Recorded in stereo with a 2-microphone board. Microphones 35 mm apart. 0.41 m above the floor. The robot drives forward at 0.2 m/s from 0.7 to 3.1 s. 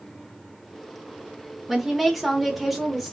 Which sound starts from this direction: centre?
A woman speaking, at 1.7 s.